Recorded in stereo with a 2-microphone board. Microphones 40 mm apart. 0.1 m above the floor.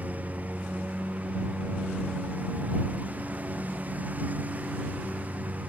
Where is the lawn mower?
40° right (ahead or behind).